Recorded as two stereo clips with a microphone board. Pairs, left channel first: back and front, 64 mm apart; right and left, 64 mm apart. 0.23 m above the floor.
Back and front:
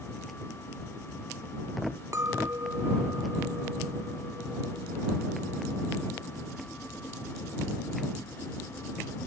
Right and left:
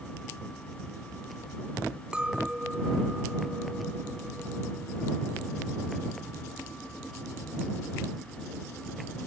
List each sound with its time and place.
2.1 s a clink: 15° left